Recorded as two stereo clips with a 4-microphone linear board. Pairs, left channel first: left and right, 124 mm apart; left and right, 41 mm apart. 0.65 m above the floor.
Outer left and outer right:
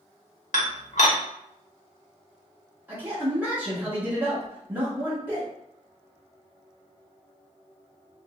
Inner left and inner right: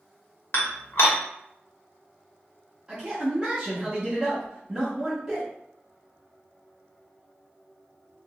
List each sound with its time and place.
0.5 s dishes clattering: 70° left (ahead or behind), 0.8 m
2.9 s a man speaking: 15° right (ahead or behind), 1.2 m